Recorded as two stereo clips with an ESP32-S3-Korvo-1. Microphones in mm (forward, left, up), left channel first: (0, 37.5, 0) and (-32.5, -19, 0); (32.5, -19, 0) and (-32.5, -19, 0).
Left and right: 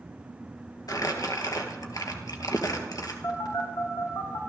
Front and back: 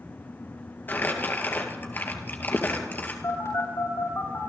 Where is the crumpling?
55° left, 2.0 m.